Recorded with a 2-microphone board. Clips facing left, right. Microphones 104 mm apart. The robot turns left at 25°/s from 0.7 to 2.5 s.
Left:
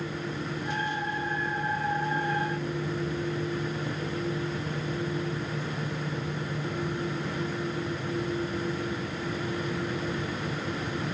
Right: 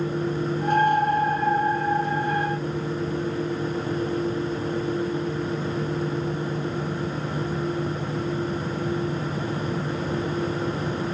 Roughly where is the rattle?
No rattle in this recording.